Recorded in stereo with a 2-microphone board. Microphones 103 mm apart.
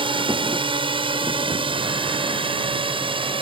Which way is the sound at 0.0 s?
55° right (ahead or behind).